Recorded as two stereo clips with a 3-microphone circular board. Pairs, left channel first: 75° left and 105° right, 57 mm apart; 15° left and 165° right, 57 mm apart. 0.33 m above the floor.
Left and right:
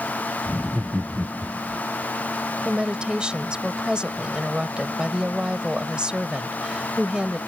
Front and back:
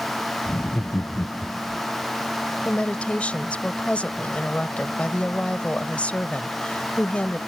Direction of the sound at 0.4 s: 40° right.